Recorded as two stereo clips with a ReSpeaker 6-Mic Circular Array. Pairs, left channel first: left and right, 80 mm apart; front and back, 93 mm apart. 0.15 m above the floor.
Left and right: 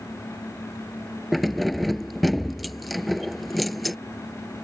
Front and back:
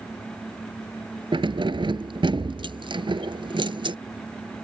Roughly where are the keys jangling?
Behind.